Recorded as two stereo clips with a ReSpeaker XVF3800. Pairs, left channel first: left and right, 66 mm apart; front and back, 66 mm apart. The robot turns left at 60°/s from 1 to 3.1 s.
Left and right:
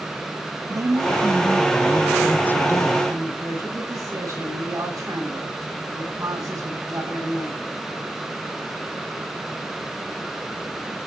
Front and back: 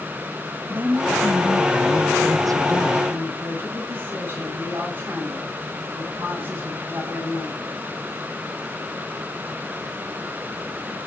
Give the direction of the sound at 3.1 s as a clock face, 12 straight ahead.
4 o'clock.